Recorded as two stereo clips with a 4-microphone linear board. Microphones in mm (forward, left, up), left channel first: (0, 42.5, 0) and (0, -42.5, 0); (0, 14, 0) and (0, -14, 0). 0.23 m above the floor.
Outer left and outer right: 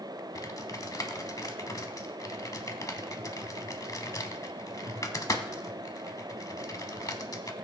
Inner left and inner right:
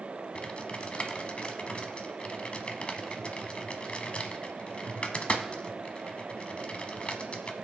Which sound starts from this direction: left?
Typing on a keyboard, at 0.3 s.